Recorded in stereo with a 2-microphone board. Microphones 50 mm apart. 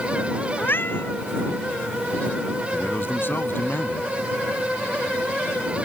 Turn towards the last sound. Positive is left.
turn(degrees=50)  # may be behind; listen again after turning